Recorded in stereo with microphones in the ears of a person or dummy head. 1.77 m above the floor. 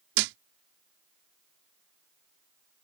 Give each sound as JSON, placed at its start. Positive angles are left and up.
{"t": 0.1, "sound": "a thud", "side_deg": -60}